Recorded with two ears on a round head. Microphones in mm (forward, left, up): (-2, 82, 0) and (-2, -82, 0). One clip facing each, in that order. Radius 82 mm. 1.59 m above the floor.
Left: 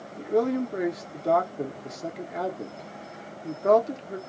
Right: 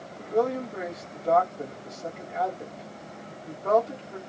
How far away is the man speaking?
About 1.4 m.